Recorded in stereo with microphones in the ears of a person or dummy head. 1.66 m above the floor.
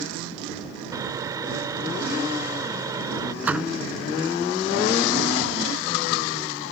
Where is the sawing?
15° right (ahead or behind).